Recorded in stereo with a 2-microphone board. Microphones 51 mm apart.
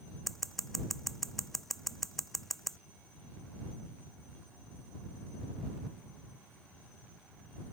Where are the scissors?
5° left (ahead or behind).